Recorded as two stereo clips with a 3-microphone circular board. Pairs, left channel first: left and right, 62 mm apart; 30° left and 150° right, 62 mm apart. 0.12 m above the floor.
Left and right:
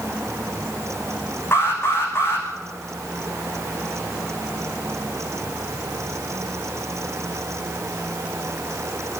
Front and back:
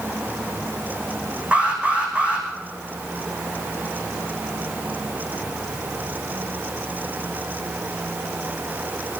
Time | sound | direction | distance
1.5 | an alarm | 140° left | 5 m